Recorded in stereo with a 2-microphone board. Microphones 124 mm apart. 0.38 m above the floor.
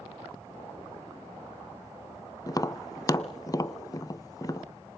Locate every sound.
2.5 s tapping: 30° left (ahead or behind), 0.6 m